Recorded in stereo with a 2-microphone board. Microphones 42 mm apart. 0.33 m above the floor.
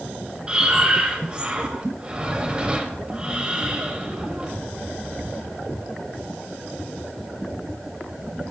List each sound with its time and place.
0.5 s breathing: 20° right (ahead or behind), 1.6 m